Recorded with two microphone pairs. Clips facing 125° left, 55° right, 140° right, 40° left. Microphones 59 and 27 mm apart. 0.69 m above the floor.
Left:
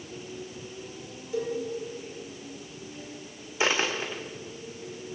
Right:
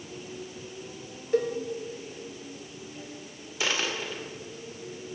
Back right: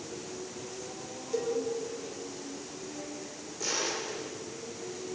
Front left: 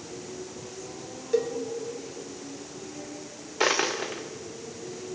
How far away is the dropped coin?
About 3 m.